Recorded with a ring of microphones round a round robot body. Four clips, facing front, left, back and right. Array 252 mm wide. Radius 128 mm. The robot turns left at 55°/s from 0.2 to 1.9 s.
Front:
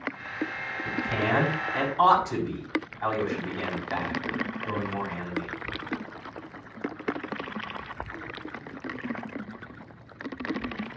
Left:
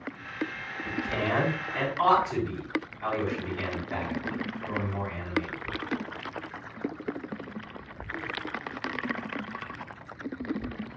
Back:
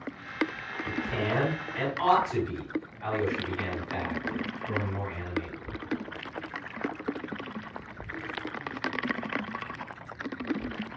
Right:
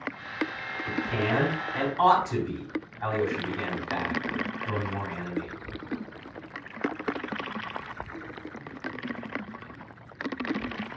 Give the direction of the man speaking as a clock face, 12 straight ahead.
11 o'clock.